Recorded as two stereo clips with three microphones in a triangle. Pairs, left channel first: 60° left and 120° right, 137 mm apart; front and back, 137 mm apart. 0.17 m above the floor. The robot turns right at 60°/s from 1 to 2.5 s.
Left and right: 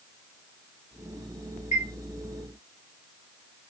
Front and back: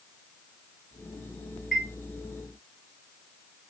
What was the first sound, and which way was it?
A chime, 90° left.